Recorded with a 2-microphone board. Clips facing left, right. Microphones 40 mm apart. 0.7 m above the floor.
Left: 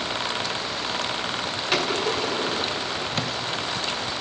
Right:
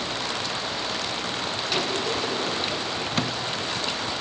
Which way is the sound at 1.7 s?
65° left (ahead or behind).